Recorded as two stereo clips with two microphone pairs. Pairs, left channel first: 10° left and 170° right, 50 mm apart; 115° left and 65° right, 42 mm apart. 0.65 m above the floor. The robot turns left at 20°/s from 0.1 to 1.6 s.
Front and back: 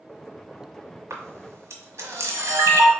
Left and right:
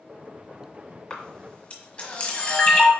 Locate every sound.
1.1 s a camera shutter: 170° right, 1.3 m; by 2.9 s straight behind, 1.3 m